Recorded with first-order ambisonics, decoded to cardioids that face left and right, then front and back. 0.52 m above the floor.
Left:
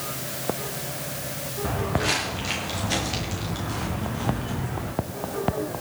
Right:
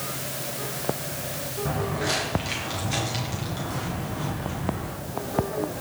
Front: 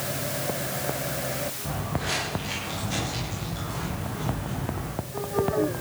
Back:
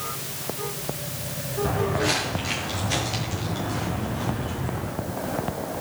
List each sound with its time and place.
1.6 s footsteps: 125° left, 8.5 m; by 4.9 s 110° left, 11.5 m